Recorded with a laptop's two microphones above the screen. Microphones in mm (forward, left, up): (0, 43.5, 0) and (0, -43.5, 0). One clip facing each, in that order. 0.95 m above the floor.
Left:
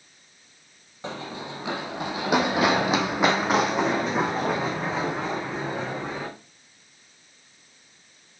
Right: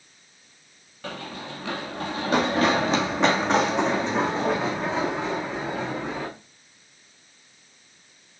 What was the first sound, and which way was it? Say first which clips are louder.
Running footsteps: left 1 dB; 25° left (ahead or behind).